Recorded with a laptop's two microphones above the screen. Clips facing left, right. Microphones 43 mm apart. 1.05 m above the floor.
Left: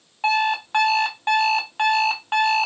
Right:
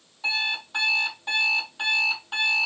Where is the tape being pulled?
I don't hear tape being pulled.